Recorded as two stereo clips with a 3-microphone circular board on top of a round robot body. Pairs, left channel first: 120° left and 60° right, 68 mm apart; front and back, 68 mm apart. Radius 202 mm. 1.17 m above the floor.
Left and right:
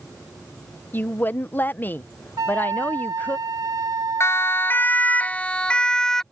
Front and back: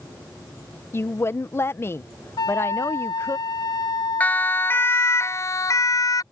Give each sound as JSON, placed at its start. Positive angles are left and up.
{"t": 0.9, "sound": "a woman speaking", "azimuth_deg": 55}
{"t": 2.4, "sound": "a flute", "azimuth_deg": -20}
{"t": 4.2, "sound": "a siren", "azimuth_deg": 70}